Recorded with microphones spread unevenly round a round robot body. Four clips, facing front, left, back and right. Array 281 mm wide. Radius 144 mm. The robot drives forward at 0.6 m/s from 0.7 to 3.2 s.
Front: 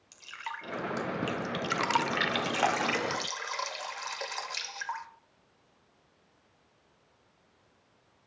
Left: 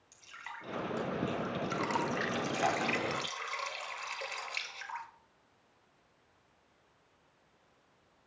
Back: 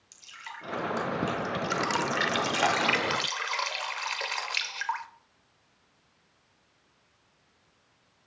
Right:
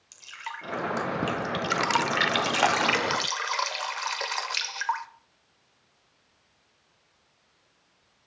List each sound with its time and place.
0.1 s dripping: 55° right, 1.3 m; by 5.1 s 125° right, 1.3 m